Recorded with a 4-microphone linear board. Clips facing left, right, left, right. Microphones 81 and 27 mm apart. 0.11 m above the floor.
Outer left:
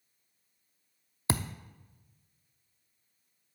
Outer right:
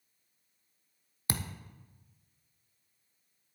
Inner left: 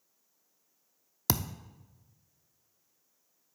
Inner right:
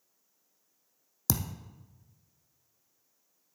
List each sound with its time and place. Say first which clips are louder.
1.3 s a thud: outer left 5 dB, inner left 2 dB; 25° left (ahead or behind), 0.5 m